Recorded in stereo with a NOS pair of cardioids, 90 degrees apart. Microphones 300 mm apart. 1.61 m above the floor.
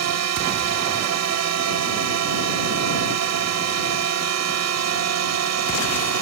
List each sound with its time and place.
0.0 s a drone: 60° right